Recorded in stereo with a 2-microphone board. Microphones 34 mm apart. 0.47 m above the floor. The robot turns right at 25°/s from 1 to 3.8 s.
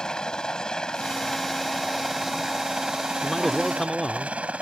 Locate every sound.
0.0 s a helicopter: 160° left; by 4.6 s 130° right
3.2 s a man speaking: centre (ahead or behind); by 4.4 s 5° left (ahead or behind)